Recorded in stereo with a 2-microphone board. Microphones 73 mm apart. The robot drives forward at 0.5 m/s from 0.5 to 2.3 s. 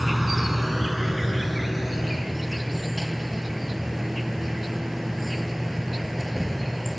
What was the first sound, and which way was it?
An insect, centre (ahead or behind).